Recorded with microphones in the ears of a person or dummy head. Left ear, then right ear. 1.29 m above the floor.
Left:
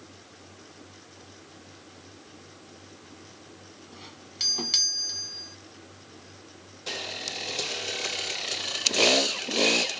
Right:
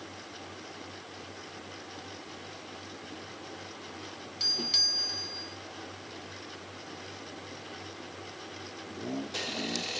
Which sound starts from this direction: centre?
A doorbell, at 3.9 s.